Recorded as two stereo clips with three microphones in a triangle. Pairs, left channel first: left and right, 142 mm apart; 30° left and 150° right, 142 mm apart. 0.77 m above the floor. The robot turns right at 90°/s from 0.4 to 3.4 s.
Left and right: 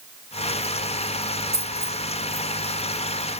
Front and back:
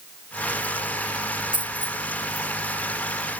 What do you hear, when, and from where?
1.5 s a dropped coin: 40° left, 1.2 m; by 2.0 s 80° left, 1.2 m